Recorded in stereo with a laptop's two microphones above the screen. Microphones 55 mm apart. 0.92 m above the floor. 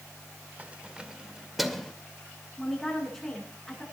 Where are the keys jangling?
25° right (ahead or behind), 1.7 m; by 1.9 s 5° left (ahead or behind), 2.0 m.